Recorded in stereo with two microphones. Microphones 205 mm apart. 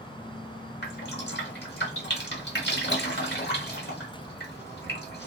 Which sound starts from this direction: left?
Dripping, at 0.8 s.